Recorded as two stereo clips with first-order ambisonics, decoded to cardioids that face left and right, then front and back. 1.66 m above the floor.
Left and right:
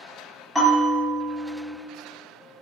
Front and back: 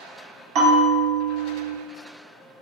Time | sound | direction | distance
0.6 | a bell | 170° left | 0.9 m